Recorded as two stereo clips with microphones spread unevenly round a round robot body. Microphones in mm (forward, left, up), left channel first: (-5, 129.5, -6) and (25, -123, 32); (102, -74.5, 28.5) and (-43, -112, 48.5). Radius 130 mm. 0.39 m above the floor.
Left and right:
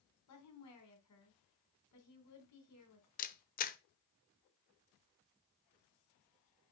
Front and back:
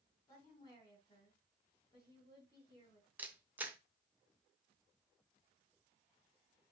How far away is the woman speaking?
About 3 m.